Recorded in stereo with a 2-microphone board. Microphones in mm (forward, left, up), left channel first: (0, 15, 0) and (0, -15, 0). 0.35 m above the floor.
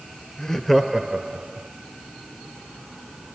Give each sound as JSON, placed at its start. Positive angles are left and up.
{"t": 0.4, "sound": "laughter", "side_deg": 20, "distance_m": 1.0}